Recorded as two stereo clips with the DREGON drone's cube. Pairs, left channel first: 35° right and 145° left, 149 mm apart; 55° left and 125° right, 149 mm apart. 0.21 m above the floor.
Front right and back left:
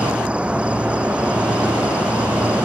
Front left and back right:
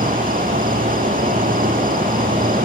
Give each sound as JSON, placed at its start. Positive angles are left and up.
{"t": 0.0, "sound": "an insect", "azimuth_deg": -135}